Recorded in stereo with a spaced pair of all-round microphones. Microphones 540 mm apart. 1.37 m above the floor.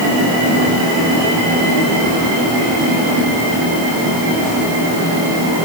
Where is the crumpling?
No crumpling in this recording.